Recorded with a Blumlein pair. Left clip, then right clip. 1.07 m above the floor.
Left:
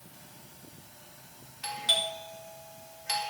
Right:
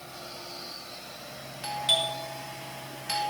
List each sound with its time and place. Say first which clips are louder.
1.6 s a doorbell: right 2 dB; straight ahead, 4 m